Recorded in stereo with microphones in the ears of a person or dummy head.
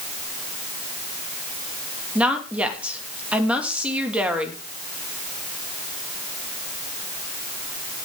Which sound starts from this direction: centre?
A woman speaking, at 2.1 s.